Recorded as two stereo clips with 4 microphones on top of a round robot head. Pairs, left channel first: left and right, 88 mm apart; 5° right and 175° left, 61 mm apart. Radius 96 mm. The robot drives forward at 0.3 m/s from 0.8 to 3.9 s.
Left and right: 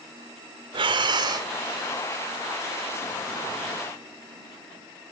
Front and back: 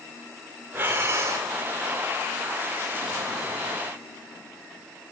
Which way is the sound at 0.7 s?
125° right.